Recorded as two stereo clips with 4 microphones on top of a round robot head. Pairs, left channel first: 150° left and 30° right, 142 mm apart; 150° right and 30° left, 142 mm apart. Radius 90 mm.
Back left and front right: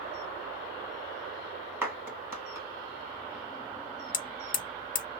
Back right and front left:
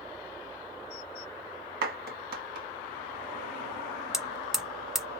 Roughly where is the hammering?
Behind left.